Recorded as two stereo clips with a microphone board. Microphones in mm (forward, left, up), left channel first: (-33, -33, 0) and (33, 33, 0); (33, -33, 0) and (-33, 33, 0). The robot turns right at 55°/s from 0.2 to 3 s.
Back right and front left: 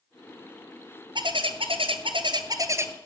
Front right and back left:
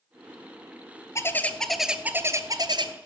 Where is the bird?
15° left, 0.7 m; by 2.9 s 110° left, 0.7 m.